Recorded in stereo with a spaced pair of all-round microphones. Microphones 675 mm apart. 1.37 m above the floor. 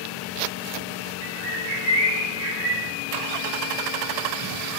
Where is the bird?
80° right, 1.0 m.